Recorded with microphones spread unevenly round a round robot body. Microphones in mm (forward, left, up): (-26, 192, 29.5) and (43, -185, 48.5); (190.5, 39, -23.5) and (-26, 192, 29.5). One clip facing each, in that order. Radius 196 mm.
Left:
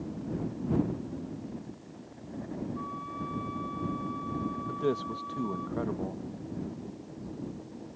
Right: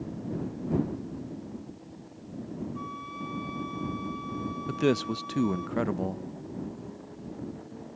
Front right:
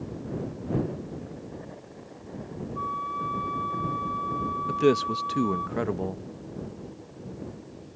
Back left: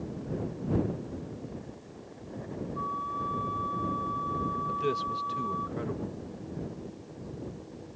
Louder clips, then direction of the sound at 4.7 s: Right 6 dB, front right 13 dB; 45° right.